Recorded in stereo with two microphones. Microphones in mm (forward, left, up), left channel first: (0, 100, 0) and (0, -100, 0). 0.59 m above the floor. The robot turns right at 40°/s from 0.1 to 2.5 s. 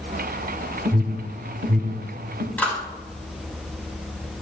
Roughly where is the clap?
Centre.